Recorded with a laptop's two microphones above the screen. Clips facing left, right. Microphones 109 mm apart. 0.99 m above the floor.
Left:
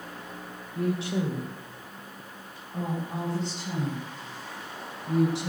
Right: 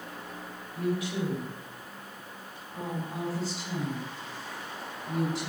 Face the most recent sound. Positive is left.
turn(degrees=25)  # may be behind; listen again after turning